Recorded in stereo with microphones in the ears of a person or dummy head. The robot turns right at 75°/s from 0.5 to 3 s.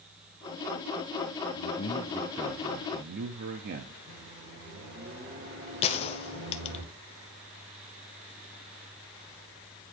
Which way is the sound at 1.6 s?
125° left.